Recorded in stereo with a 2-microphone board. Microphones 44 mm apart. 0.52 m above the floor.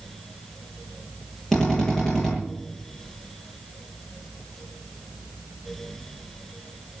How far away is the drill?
About 9.5 m.